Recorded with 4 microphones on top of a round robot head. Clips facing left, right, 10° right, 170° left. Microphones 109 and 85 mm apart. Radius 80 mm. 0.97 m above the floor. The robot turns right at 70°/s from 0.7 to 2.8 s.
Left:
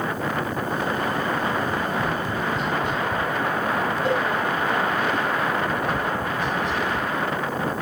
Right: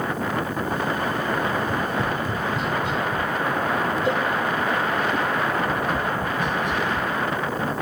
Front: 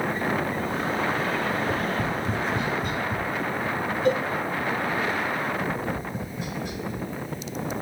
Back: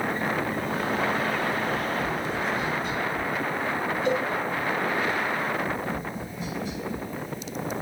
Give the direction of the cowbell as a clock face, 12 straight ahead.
11 o'clock.